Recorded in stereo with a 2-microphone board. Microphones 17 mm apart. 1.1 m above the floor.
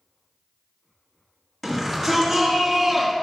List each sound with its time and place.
1.6 s a shout: 10° left (ahead or behind), 2.5 m; by 3.1 s 10° right (ahead or behind), 1.1 m